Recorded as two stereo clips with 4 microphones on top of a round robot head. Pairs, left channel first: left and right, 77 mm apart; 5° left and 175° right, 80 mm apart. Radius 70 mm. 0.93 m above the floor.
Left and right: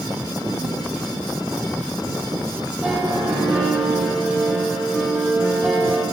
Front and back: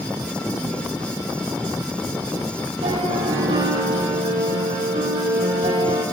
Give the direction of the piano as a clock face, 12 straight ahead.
6 o'clock.